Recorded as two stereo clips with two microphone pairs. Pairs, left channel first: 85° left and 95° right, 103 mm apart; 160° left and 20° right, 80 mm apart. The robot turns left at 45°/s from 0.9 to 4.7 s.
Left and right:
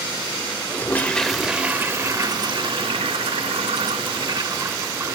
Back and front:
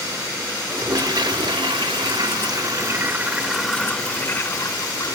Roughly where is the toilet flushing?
Ahead.